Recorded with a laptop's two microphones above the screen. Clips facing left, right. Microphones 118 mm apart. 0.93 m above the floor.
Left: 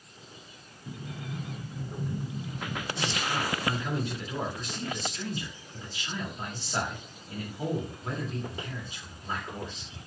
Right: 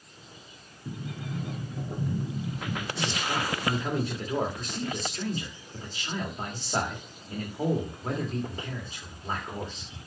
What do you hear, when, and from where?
0.8 s a sliding door: 65° right (ahead or behind), 1.9 m
3.0 s a man speaking: 40° right (ahead or behind), 2 m